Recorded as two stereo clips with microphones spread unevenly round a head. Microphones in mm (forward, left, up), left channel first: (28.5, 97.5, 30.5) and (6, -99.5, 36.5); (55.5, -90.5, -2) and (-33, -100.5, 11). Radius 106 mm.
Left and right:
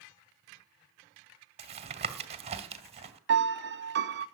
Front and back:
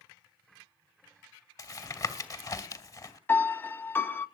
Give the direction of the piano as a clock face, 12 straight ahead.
2 o'clock.